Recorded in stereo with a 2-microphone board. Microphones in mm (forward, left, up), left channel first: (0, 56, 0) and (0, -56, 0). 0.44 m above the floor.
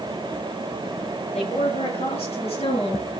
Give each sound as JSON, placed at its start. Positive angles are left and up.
{"t": 1.3, "sound": "a woman speaking", "side_deg": 65, "distance_m": 7.5}